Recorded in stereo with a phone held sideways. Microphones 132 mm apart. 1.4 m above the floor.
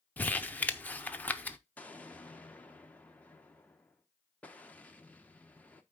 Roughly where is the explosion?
Centre.